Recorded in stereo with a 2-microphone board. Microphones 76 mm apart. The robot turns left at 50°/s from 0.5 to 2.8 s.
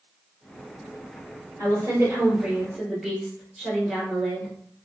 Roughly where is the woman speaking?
Behind right.